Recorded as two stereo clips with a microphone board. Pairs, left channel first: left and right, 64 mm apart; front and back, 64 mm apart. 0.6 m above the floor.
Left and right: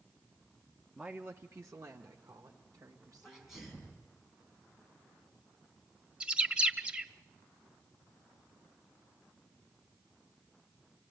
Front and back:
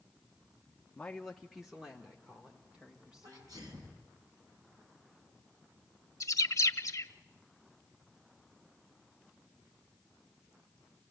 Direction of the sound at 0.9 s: 35° right.